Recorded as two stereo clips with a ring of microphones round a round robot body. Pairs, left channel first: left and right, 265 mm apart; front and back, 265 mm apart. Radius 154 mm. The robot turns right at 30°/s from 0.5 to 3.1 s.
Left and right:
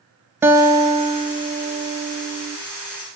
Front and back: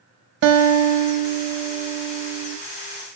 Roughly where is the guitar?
Behind.